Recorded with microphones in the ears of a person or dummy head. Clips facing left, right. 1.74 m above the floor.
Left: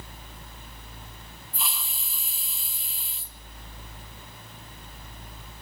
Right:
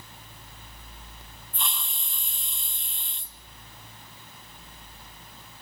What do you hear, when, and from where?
1.5 s a hiss: 5° left (ahead or behind), 1.0 m